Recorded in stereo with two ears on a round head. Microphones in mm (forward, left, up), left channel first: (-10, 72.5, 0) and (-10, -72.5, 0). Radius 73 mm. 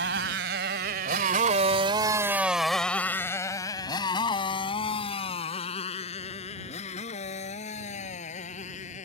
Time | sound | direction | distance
0.0 | a motorcycle | 80° right | ?